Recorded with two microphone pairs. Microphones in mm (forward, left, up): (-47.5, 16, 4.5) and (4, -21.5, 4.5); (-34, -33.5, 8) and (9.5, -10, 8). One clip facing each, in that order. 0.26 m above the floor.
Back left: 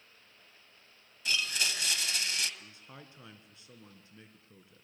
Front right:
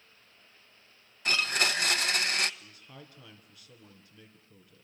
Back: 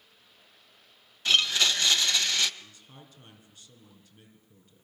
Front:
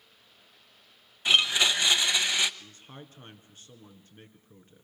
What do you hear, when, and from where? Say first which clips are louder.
1.2 s a blender: front right 5 dB, front 1 dB; 40° right, 0.9 m
2.6 s a man speaking: front right 1 dB, front 4 dB; 80° left, 3.5 m